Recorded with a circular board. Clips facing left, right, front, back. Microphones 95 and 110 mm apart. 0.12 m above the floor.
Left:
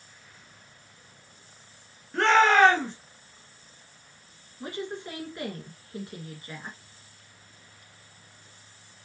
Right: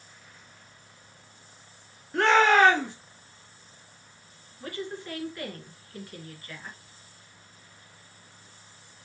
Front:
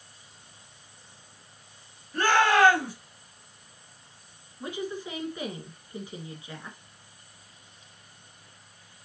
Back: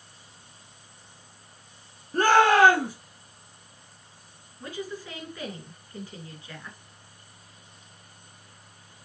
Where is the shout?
170° right, 2.0 m.